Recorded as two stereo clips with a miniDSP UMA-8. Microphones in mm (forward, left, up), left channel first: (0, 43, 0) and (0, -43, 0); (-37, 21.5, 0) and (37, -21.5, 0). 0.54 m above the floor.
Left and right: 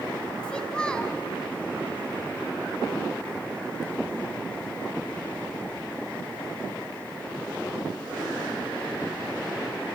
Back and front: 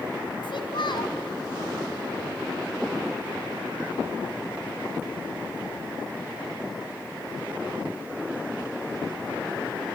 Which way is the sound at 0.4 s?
170° left.